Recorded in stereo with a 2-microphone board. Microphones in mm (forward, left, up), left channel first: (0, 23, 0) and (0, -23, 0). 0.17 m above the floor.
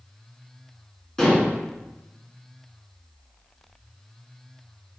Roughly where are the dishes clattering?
Centre.